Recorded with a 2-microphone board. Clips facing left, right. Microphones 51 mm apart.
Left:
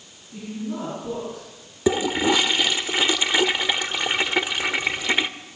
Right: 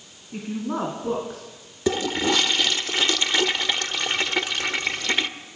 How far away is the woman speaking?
About 4.5 m.